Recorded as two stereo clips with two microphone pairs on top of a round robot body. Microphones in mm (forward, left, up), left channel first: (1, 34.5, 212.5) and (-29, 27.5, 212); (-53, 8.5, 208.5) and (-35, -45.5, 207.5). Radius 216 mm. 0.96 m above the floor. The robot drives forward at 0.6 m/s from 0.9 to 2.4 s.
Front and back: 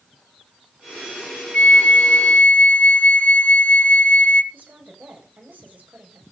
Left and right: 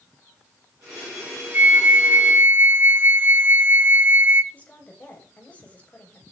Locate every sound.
1.5 s a flute: 20° right, 1.8 m; by 4.4 s 25° right, 1.4 m
4.5 s a woman speaking: 175° left, 7 m